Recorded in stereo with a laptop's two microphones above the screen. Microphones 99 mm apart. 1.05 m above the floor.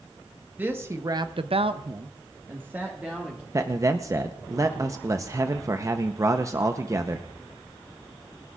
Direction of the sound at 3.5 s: 35° right (ahead or behind).